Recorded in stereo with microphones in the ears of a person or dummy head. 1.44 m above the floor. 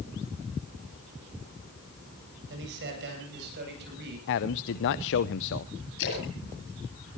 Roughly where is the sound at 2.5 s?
Right.